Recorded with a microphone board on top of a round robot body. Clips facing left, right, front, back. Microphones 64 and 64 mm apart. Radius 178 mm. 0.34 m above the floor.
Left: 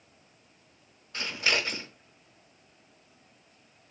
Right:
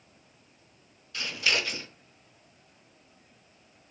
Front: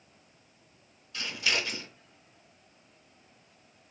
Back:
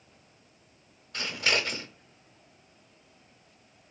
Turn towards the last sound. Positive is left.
turn(degrees=140)